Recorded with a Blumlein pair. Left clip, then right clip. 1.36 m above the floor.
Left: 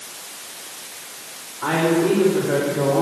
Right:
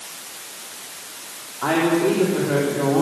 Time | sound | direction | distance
1.6 | a woman speaking | 20° right | 3.5 m